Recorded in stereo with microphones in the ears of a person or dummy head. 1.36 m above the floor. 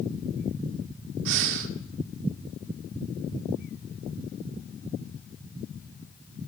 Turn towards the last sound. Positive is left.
turn(degrees=-70)  # may be behind; listen again after turning